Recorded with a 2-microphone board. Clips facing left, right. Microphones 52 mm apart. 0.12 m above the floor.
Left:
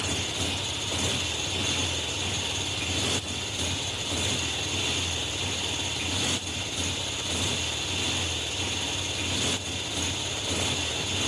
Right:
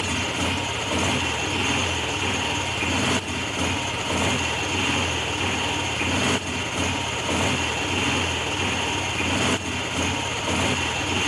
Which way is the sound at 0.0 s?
45° right (ahead or behind).